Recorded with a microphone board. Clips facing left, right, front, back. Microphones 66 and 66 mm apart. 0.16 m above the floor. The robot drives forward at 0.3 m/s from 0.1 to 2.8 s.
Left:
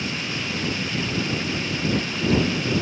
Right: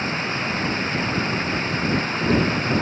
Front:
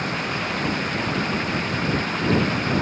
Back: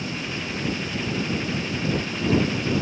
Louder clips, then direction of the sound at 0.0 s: Right 4 dB, front 5 dB; 35° right.